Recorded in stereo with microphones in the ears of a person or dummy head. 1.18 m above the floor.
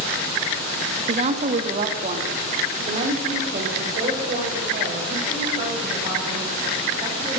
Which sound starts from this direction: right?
A woman speaking, at 1.1 s.